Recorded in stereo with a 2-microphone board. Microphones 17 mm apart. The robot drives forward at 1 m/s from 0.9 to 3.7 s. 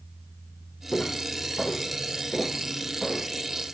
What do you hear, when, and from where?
0.9 s footsteps: 80° left, 4.5 m; by 3.3 s 55° left (ahead or behind), 7 m